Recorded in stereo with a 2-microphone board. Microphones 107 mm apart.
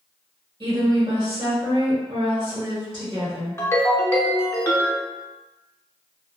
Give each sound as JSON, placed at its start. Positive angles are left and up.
{"t": 0.6, "sound": "a woman speaking", "side_deg": -40, "distance_m": 1.5}
{"t": 3.6, "sound": "a ringtone", "side_deg": 25, "distance_m": 0.6}